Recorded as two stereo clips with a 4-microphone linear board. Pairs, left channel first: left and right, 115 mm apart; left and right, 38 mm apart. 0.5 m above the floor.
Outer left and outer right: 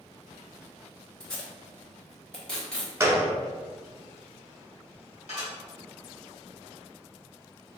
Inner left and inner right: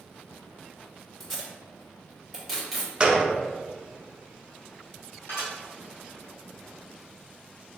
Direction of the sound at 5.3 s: 75° left (ahead or behind).